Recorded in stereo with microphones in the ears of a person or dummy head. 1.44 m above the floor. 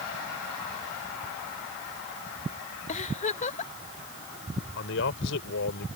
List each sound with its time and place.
2.9 s a giggle: 35° left (ahead or behind)
4.8 s a man speaking: 75° left (ahead or behind)